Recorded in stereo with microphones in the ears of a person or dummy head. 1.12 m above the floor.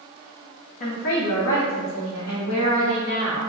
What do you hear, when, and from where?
0.8 s a woman speaking: 30° left (ahead or behind), 0.6 m; by 3.4 s 80° left, 3 m